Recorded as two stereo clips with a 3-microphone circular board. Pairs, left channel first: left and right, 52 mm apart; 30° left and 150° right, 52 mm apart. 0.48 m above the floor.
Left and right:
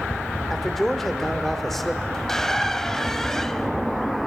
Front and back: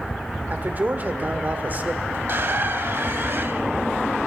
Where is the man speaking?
175° left, 1.6 m.